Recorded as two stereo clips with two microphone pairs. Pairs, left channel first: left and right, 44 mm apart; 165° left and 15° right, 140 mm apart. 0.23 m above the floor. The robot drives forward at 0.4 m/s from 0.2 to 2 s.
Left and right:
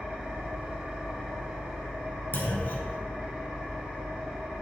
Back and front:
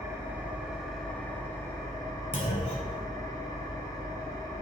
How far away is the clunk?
About 0.8 m.